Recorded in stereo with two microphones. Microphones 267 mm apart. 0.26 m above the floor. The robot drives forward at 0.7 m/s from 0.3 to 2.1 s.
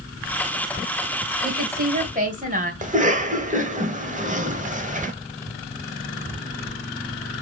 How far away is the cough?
About 1.1 m.